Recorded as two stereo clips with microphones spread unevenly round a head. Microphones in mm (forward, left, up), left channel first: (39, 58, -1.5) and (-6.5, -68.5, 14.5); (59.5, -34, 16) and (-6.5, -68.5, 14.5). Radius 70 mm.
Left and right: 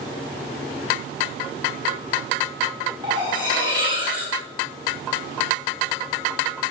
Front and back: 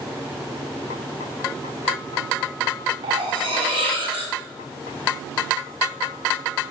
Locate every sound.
3.0 s cutlery clinking: 170° right, 1.5 m